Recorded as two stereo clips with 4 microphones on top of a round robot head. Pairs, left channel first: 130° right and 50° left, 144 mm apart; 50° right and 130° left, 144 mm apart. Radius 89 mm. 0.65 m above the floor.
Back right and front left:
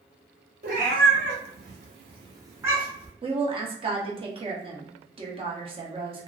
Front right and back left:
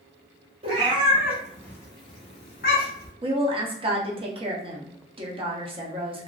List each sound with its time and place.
0.6 s a cat meowing: 80° left, 1.0 m; by 3.1 s 35° right, 1.2 m
3.2 s a woman speaking: 90° left, 1.1 m